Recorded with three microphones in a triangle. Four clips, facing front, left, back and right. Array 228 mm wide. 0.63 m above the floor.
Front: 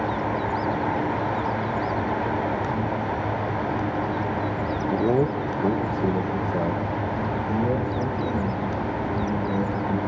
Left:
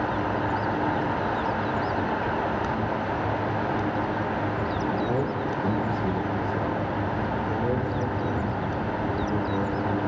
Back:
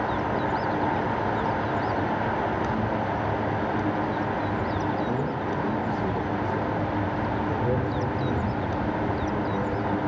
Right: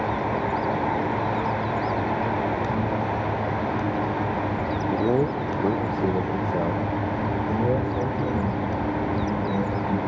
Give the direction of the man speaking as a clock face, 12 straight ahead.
1 o'clock.